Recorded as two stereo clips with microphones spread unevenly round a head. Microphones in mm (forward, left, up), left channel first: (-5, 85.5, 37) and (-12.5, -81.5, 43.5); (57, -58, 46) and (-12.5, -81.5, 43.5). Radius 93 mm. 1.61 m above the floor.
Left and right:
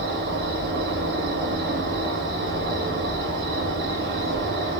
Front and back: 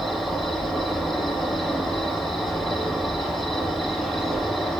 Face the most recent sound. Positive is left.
turn(degrees=-70)